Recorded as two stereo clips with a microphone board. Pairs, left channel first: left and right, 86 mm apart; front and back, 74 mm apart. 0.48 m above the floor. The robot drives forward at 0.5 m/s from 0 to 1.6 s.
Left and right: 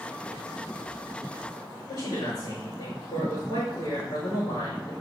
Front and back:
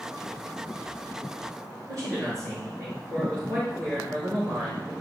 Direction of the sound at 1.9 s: 140° left.